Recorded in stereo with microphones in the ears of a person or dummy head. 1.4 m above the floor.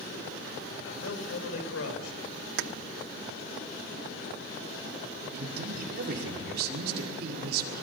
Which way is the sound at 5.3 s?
65° right (ahead or behind).